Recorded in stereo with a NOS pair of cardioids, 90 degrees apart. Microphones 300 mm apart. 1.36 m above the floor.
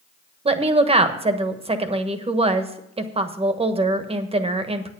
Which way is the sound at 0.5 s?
20° right.